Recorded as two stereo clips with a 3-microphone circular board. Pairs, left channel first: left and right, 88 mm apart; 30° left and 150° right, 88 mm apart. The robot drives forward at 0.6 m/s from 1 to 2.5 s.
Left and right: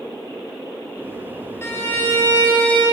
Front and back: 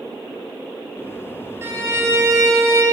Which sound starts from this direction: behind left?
A violin, at 1.6 s.